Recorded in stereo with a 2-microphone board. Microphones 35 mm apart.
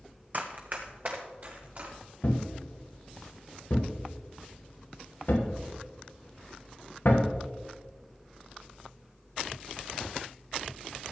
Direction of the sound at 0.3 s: 45° right (ahead or behind).